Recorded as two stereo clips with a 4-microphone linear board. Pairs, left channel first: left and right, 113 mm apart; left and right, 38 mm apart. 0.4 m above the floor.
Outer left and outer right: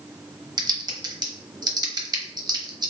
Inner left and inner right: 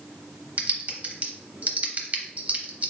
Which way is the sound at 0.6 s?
35° right (ahead or behind).